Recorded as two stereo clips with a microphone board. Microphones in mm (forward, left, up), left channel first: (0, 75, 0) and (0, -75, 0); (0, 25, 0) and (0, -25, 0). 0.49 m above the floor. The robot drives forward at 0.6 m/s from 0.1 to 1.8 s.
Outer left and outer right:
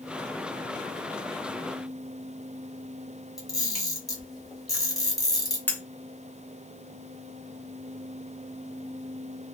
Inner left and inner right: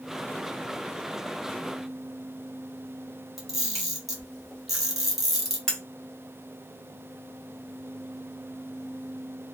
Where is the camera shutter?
5° right (ahead or behind), 1.2 m.